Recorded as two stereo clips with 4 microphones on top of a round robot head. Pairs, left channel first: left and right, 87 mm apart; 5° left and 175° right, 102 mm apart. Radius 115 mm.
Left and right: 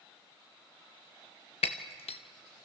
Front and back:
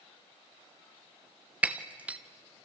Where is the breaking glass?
110° left, 0.6 m.